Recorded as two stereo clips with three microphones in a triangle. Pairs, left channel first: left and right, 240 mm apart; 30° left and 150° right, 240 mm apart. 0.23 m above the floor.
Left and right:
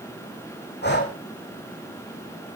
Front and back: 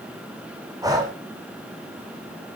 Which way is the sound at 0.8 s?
135° left.